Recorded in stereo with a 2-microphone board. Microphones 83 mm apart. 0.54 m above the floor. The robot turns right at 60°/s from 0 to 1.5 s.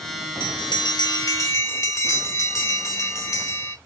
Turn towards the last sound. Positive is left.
turn(degrees=140)